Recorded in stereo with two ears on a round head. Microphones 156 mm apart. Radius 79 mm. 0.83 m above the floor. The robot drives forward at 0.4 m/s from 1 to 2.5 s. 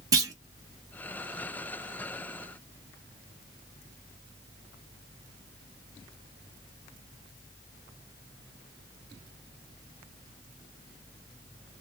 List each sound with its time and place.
0.1 s a clunk: 20° right (ahead or behind), 1.0 m